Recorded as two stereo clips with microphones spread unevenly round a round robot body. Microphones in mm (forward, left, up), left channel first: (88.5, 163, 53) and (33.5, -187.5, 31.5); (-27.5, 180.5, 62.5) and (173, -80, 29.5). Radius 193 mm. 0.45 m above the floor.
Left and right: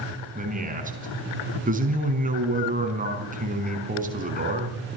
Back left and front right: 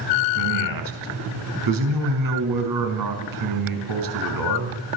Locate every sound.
0.3 s a man speaking: 30° right, 5 m